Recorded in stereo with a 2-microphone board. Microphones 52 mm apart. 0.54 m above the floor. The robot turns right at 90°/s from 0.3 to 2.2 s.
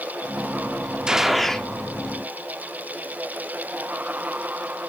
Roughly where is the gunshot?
Ahead right.